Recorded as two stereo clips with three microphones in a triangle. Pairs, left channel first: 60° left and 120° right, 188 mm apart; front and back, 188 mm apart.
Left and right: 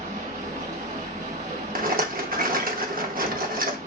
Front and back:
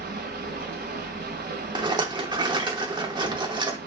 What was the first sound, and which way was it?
Running water, 165° right.